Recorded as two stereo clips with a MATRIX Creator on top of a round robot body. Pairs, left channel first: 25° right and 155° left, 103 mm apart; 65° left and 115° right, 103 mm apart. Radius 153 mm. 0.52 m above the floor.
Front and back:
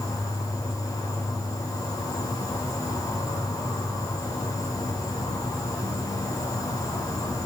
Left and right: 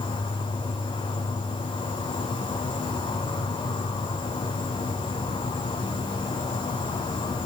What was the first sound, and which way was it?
An insect, 30° left.